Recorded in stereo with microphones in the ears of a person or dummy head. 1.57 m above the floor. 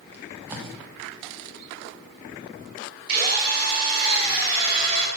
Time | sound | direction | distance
0.1 | tape being pulled | 10° right (ahead or behind) | 1.3 m
3.1 | a drill | 50° right (ahead or behind) | 5 m